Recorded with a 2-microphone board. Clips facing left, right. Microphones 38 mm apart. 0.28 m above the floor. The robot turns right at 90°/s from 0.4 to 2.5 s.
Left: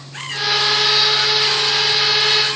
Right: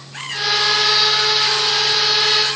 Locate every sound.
Only background noise.